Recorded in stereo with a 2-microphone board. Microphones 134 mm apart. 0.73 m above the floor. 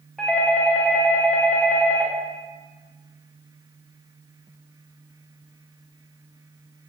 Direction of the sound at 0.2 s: 5° left (ahead or behind).